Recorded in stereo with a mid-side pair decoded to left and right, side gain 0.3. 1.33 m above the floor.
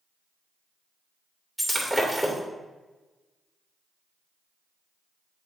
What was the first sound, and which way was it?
Breaking glass, 5° right.